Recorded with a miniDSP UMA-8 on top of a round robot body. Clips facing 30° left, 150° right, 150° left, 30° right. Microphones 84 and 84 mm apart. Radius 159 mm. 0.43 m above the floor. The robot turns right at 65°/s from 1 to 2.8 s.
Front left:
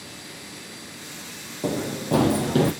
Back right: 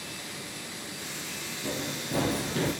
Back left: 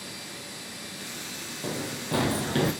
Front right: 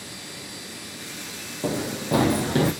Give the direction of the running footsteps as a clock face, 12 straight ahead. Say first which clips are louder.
Front left 9 dB, front right 7 dB; 11 o'clock.